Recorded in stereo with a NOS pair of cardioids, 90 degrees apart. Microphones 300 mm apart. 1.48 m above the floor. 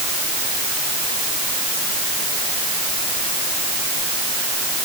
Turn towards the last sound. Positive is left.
No sound to turn to.